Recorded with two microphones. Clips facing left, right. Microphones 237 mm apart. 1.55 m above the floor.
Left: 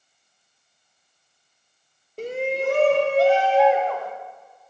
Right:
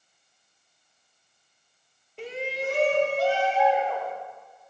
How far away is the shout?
About 0.6 m.